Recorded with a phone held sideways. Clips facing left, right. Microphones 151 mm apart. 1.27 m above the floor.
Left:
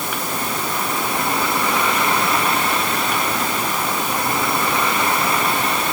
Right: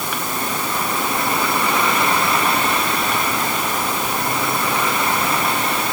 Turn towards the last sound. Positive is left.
No sound to turn to.